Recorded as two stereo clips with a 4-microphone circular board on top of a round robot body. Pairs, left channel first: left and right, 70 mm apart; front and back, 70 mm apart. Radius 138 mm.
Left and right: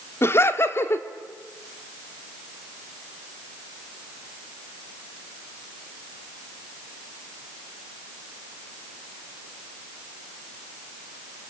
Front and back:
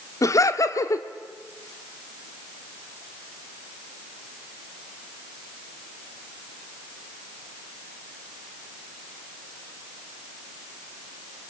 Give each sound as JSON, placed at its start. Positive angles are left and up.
{"t": 0.2, "sound": "laughter", "azimuth_deg": 40, "distance_m": 1.7}